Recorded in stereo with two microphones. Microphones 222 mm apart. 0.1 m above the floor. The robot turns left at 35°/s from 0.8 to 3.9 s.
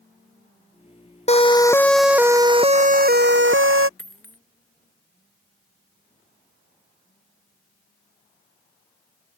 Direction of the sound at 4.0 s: 75° left (ahead or behind).